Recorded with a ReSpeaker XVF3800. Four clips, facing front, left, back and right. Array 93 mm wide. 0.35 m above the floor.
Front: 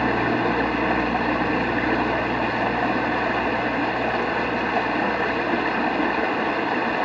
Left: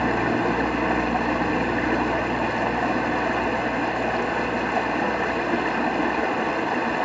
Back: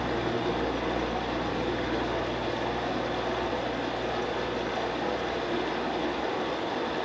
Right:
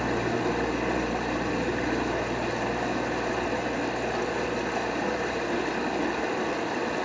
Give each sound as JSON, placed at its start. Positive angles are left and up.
{"t": 0.0, "sound": "running water", "azimuth_deg": 30, "distance_m": 0.9}